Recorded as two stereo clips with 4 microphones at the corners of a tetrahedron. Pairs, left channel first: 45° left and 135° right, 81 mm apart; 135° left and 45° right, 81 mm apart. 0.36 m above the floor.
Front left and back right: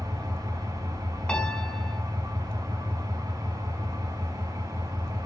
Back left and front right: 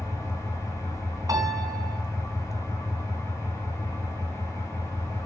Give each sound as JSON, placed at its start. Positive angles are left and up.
{"t": 0.0, "sound": "an engine running", "azimuth_deg": -175, "distance_m": 8.5}
{"t": 1.3, "sound": "a piano", "azimuth_deg": -30, "distance_m": 2.5}